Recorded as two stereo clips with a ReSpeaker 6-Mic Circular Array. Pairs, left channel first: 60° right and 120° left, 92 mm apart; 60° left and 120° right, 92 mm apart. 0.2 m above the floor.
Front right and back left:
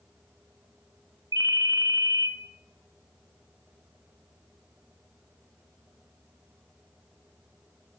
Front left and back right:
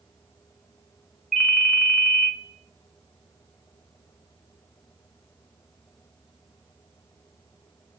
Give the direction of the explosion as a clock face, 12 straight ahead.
I don't hear an explosion.